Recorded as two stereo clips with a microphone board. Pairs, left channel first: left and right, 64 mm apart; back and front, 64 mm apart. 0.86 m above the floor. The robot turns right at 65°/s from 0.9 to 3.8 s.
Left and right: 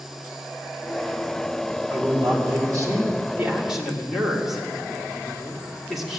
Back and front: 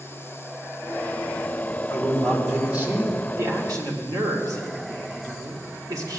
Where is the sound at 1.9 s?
125° right, 3 m; by 3.2 s 35° right, 3 m.